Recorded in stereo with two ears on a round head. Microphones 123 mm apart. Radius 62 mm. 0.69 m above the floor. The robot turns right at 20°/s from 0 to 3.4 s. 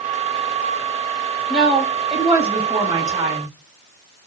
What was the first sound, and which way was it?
A woman speaking, 60° right.